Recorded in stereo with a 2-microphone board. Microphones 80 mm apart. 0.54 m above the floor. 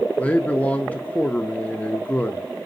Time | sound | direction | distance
0.2 | a man speaking | 20° left (ahead or behind) | 0.6 m